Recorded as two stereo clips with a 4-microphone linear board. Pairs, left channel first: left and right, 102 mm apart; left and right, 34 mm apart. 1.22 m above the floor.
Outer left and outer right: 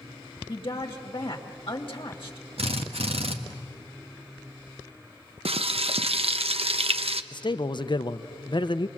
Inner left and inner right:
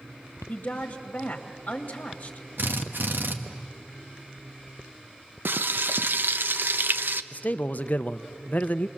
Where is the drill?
85° right, 1.3 m.